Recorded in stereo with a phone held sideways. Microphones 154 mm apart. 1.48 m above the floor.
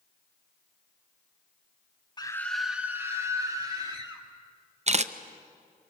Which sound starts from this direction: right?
A camera shutter, at 4.9 s.